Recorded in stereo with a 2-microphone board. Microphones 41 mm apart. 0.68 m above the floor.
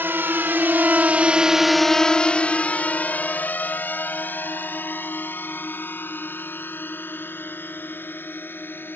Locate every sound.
0.0 s a drone: 70° right (ahead or behind); by 9.0 s 60° left (ahead or behind)